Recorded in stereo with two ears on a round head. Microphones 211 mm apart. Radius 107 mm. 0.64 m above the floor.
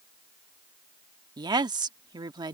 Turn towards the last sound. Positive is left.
turn(degrees=-15)  # may be behind; listen again after turning